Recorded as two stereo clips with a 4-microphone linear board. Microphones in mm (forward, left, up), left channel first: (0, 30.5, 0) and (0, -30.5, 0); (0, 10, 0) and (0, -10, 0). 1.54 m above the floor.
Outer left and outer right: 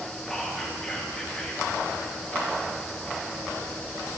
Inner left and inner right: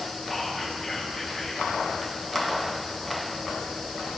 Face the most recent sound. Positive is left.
turn(degrees=10)  # may be behind; listen again after turning